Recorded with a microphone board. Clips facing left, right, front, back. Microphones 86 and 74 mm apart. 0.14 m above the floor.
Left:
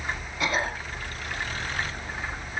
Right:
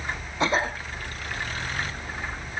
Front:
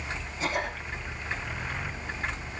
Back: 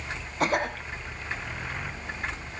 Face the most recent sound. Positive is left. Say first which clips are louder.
# right 3 dB, back 5 dB
turn(degrees=-150)